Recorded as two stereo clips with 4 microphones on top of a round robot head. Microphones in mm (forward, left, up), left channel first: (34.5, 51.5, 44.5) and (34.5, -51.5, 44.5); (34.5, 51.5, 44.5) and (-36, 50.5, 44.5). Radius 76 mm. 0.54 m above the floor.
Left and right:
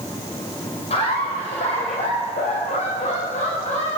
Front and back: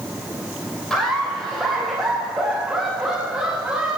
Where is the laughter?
80° left, 3 m; by 4.0 s 105° left, 4.5 m.